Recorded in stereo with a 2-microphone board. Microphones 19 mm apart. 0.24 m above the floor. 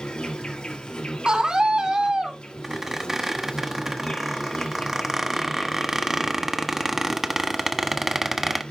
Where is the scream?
50° right (ahead or behind), 2.5 m.